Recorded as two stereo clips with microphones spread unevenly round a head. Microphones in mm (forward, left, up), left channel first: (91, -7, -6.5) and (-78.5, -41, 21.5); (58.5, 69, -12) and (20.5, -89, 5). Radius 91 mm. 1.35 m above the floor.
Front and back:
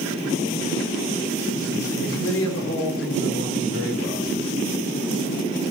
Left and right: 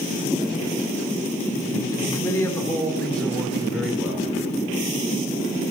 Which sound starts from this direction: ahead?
A man speaking, at 1.9 s.